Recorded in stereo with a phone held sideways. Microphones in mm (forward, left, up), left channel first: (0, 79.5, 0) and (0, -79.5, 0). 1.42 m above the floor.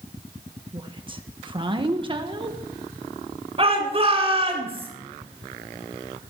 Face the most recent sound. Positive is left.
turn(degrees=-35)  # may be behind; listen again after turning